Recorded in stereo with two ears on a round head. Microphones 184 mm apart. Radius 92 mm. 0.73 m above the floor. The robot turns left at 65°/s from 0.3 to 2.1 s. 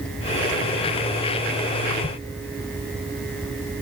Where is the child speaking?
No child speaking in this recording.